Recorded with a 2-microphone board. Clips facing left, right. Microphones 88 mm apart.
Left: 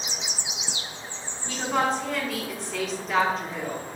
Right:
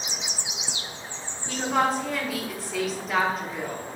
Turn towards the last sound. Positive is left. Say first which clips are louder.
# right 1 dB
turn(degrees=-5)  # may be behind; listen again after turning